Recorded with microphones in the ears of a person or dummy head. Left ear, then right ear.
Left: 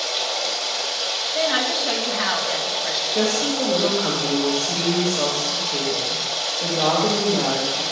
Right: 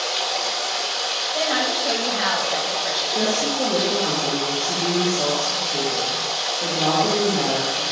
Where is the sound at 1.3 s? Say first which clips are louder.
Left 1 dB; 15° right (ahead or behind), 2.5 m.